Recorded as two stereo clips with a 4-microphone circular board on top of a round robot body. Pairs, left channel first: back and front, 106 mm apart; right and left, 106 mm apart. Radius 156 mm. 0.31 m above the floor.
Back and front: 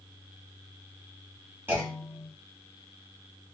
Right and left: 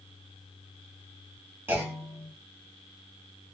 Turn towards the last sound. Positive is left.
turn(degrees=45)